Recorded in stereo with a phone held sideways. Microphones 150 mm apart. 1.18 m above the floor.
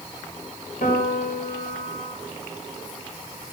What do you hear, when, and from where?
0.8 s a piano: 70° left (ahead or behind), 4 m